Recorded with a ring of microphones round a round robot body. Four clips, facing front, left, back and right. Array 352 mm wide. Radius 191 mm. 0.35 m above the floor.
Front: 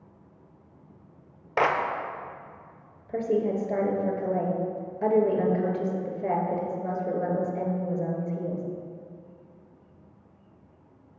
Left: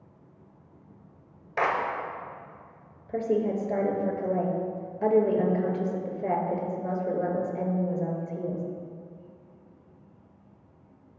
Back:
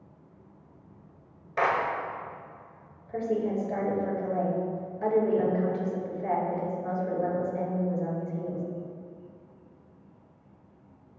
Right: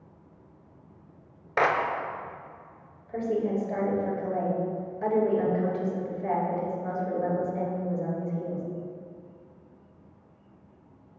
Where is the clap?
35° right, 0.9 m.